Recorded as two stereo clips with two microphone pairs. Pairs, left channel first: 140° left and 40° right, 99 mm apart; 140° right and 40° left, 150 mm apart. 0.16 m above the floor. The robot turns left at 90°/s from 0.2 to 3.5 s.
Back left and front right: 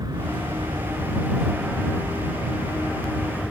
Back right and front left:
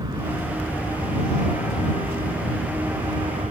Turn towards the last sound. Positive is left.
turn(degrees=50)